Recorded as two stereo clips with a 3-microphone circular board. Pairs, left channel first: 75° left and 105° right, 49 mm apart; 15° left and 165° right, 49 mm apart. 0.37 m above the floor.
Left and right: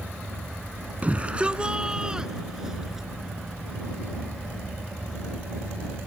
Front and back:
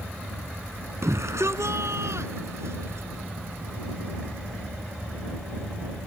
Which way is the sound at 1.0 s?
165° right.